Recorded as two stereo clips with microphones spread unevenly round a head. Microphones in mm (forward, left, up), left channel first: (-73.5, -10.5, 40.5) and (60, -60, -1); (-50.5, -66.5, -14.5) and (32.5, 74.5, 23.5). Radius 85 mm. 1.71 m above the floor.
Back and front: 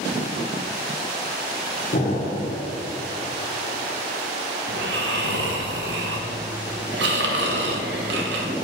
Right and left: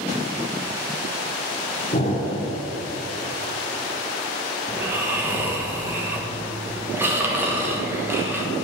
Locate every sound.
1.9 s an explosion: 165° right, 1.7 m
4.7 s snoring: 5° right, 1.1 m